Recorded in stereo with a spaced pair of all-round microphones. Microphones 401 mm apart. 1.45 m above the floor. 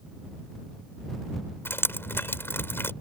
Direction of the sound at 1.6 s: 5° left (ahead or behind).